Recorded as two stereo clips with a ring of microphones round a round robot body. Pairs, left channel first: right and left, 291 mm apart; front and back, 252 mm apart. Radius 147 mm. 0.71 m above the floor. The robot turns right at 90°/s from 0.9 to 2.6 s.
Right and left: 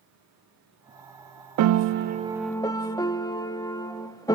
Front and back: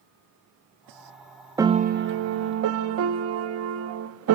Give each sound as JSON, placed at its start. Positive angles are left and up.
{"t": 1.6, "sound": "a piano", "azimuth_deg": 100, "distance_m": 0.6}